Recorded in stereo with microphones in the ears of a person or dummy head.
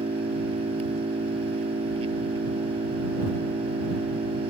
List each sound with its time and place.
0.0 s an engine running: 25° right (ahead or behind)